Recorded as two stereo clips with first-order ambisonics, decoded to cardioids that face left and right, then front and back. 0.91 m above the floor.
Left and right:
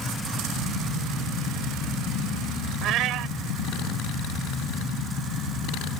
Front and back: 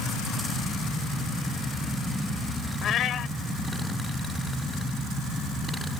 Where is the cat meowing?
50° right.